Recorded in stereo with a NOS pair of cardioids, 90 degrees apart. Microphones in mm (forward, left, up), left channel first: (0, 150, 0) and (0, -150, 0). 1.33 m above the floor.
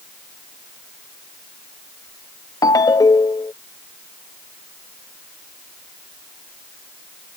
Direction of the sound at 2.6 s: 15° left.